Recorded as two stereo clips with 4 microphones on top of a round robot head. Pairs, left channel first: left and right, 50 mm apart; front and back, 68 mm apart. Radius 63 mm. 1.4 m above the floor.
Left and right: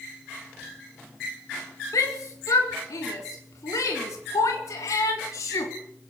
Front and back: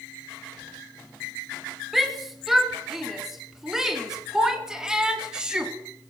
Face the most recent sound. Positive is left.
turn(degrees=100)